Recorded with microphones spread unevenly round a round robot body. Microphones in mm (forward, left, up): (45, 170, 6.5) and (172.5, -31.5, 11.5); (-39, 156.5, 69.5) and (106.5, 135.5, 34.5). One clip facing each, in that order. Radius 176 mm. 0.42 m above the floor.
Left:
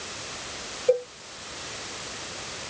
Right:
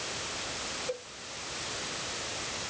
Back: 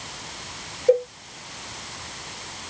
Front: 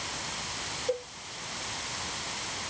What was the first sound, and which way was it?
A cowbell, 155° left.